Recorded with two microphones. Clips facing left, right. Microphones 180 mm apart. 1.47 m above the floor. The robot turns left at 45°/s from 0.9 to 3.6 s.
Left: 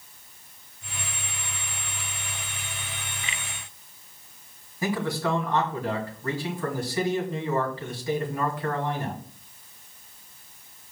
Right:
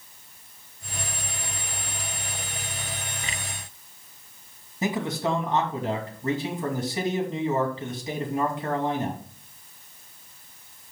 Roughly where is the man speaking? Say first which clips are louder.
Even; right.